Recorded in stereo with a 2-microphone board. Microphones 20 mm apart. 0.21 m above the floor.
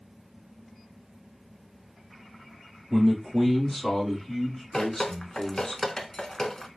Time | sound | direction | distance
2.9 | a man speaking | centre (ahead or behind) | 1.4 m
4.7 | dripping | 45° left (ahead or behind) | 0.6 m